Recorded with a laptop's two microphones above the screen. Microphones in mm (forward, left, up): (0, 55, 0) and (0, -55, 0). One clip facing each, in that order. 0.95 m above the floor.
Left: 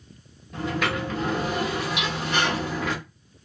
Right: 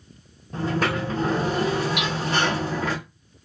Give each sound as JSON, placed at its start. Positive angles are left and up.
{"t": 0.5, "sound": "a sliding door", "side_deg": -35, "distance_m": 0.9}
{"t": 2.0, "sound": "hammering", "side_deg": -55, "distance_m": 1.0}